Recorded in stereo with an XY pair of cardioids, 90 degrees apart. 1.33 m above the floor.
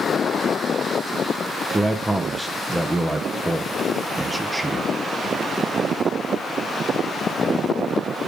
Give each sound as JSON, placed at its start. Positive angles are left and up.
{"t": 1.7, "sound": "a man speaking", "azimuth_deg": -15, "distance_m": 0.8}